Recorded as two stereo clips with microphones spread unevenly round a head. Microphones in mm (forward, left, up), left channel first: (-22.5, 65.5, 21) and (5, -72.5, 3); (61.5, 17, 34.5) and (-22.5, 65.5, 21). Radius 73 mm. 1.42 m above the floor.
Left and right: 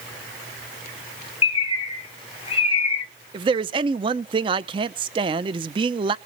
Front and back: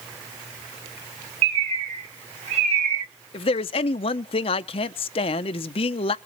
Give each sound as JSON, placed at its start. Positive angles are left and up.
{"t": 1.4, "sound": "a bird", "azimuth_deg": 145, "distance_m": 1.3}
{"t": 3.3, "sound": "a man speaking", "azimuth_deg": -20, "distance_m": 0.6}